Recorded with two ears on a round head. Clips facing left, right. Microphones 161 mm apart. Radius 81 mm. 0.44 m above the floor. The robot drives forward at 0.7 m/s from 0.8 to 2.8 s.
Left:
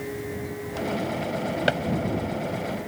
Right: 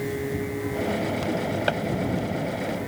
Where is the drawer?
20° left (ahead or behind).